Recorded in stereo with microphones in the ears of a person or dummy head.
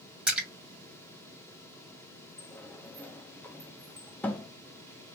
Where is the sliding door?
10° left (ahead or behind), 0.5 m.